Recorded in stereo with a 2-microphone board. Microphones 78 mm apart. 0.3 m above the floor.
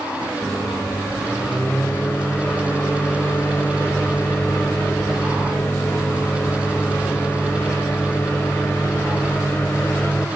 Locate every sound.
0.4 s a microwave: 25° left (ahead or behind), 0.9 m